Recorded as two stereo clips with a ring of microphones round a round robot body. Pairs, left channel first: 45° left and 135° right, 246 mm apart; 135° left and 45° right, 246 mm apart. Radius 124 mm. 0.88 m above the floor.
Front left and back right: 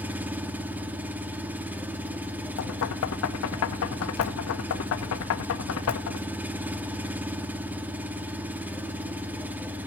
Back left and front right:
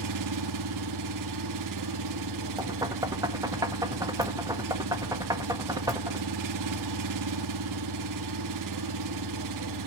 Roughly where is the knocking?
Ahead left.